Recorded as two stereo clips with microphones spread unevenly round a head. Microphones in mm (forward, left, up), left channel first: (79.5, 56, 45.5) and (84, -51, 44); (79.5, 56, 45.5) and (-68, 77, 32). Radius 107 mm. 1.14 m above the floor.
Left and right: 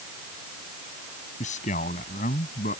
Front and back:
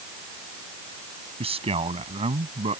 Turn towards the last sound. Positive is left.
turn(degrees=120)